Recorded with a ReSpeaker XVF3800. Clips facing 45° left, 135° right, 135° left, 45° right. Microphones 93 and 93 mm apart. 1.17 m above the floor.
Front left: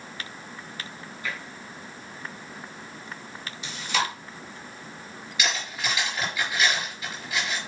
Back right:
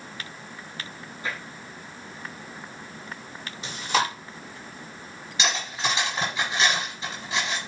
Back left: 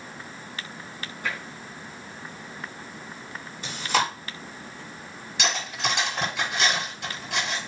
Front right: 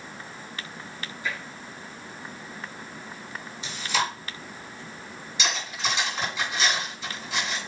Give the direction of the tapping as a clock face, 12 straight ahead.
6 o'clock.